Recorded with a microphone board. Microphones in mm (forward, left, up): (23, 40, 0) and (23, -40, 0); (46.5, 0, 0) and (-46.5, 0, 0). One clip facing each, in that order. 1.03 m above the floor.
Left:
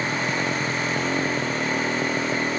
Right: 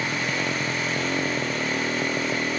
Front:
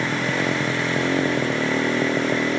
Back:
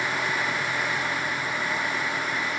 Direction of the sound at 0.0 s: Straight ahead.